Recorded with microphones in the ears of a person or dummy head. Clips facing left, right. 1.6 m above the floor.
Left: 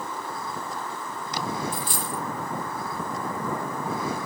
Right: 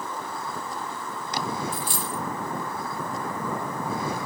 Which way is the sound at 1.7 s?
25° left (ahead or behind).